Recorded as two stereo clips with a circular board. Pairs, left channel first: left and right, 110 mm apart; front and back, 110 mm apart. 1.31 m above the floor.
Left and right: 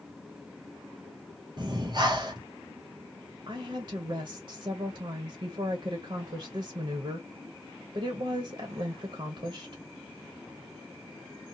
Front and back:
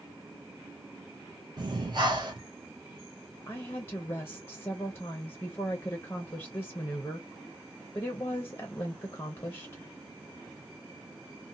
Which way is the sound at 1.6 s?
135° right.